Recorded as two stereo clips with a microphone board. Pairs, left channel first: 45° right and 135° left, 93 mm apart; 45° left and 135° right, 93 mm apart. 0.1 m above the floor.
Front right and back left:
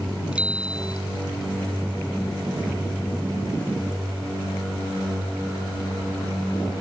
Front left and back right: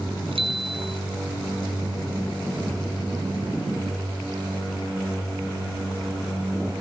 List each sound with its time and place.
0.3 s a bicycle bell: 145° right